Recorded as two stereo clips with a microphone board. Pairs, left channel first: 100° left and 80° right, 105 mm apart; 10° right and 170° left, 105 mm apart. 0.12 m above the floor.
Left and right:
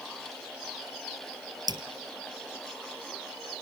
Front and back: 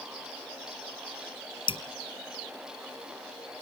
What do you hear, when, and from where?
1.7 s dripping: 35° right, 1.1 m